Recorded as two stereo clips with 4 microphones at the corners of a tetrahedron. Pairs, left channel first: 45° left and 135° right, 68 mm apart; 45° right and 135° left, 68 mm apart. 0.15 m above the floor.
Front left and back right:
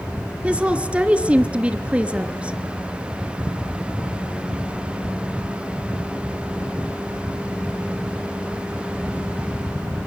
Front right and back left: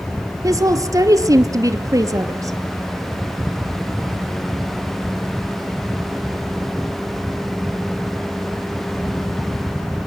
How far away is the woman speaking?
About 2.5 m.